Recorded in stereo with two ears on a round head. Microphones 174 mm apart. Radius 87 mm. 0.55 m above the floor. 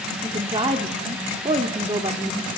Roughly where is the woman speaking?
Right.